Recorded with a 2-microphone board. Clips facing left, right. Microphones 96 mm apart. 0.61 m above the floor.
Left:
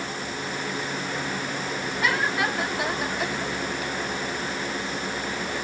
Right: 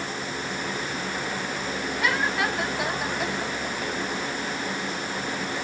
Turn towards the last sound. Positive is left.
No sound to turn to.